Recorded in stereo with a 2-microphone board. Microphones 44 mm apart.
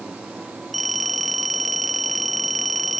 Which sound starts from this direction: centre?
A phone ringing, at 0.7 s.